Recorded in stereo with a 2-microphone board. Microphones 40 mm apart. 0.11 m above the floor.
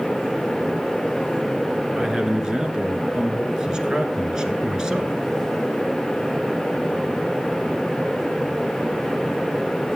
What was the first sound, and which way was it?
A man speaking, 15° right (ahead or behind).